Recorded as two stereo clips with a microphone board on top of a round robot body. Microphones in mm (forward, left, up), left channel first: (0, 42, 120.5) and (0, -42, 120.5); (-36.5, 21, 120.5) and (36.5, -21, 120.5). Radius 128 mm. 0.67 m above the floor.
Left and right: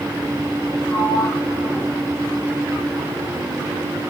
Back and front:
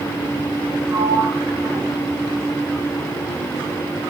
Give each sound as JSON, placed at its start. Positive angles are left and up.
{"t": 0.9, "sound": "a sliding door", "azimuth_deg": 25, "distance_m": 9.5}